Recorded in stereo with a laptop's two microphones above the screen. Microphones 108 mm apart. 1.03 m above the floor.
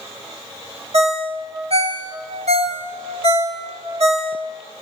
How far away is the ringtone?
About 1.0 m.